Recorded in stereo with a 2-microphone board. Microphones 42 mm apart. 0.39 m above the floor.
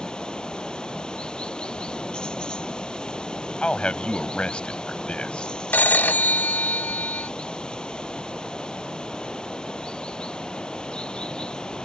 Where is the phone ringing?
50° left (ahead or behind).